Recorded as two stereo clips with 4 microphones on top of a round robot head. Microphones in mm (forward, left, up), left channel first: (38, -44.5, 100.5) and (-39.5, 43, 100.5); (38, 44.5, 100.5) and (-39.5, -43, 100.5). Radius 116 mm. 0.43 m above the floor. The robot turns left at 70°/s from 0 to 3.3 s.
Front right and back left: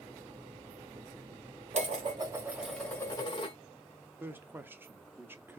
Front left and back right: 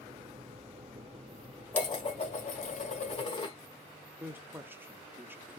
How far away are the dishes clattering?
About 1.3 m.